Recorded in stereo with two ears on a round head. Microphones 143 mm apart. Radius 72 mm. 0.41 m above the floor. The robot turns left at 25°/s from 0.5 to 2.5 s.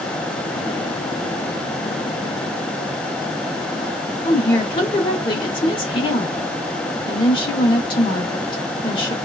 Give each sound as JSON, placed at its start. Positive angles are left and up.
{"t": 4.2, "sound": "a woman speaking", "side_deg": 30, "distance_m": 0.9}